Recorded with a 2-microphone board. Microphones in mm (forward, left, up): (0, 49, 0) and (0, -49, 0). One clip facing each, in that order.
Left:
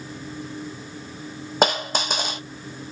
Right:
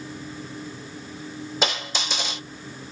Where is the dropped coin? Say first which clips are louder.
Left 7 dB; 50° left (ahead or behind), 1.3 m.